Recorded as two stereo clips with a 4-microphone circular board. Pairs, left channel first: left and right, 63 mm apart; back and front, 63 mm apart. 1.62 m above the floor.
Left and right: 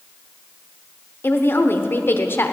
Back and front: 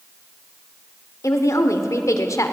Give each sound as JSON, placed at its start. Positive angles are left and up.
{"t": 1.2, "sound": "a woman speaking", "azimuth_deg": 145, "distance_m": 1.0}